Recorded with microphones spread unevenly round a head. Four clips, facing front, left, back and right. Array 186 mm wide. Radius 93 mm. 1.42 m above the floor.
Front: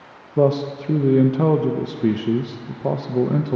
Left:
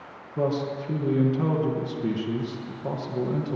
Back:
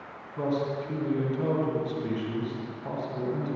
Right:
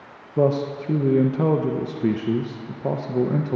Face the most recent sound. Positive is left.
turn(degrees=-30)